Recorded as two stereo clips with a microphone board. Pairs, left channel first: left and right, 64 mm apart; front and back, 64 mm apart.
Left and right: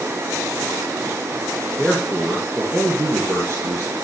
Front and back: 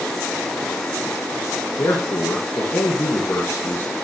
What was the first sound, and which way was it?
A man speaking, straight ahead.